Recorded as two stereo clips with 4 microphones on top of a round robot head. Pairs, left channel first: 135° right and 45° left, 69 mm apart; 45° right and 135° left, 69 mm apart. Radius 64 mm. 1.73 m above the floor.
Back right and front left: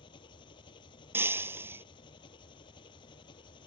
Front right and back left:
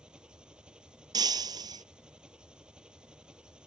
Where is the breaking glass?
105° left.